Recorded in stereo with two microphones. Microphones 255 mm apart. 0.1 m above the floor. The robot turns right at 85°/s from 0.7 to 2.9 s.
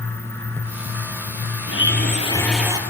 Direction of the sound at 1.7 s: 105° left.